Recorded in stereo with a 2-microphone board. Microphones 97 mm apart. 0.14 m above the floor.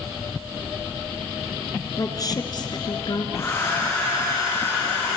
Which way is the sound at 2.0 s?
40° left (ahead or behind).